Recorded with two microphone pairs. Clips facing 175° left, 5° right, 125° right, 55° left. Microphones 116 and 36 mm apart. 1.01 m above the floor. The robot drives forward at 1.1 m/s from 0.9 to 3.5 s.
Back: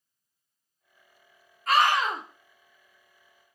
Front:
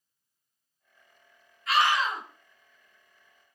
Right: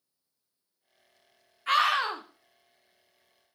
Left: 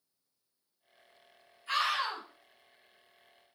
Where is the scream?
140° right, 1.8 m; by 2.2 s 150° right, 2.5 m.